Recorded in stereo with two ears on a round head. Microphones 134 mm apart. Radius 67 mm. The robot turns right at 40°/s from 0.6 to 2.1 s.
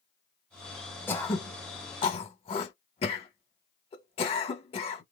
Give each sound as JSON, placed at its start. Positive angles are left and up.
{"t": 1.1, "sound": "throat clearing", "side_deg": 15, "distance_m": 1.3}